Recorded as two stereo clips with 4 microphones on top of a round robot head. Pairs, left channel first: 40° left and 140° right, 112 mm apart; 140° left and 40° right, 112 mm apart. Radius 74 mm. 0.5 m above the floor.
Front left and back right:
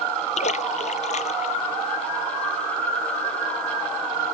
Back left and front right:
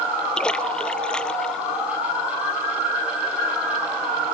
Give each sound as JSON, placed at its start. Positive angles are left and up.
{"t": 0.4, "sound": "a splash", "azimuth_deg": 60}